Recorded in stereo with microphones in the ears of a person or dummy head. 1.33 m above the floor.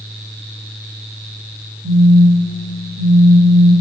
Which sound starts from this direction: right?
A phone buzzing, at 1.8 s.